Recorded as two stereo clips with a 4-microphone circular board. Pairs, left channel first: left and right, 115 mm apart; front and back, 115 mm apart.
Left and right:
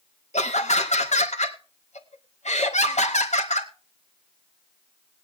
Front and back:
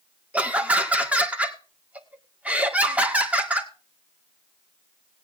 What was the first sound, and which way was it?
Laughter, 105° left.